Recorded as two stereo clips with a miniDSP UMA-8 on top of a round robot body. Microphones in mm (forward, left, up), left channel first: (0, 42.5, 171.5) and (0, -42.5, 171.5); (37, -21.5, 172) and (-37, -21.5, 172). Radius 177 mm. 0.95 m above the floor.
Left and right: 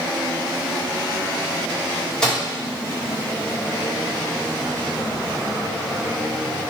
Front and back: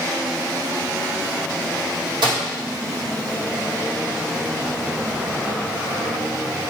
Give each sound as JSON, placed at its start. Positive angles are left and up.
{"t": 2.2, "sound": "a microwave", "azimuth_deg": 170, "distance_m": 1.3}